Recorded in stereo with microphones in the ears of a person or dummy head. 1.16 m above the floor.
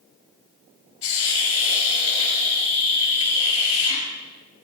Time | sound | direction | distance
1.0 | a hiss | 35° left (ahead or behind) | 4 m